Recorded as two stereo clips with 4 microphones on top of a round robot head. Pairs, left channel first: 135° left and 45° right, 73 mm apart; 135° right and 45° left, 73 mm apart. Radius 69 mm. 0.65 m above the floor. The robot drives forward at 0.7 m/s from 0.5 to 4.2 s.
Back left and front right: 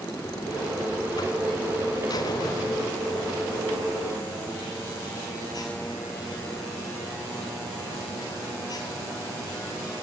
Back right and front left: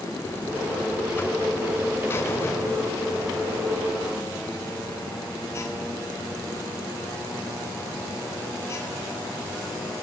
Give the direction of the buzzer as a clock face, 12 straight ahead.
7 o'clock.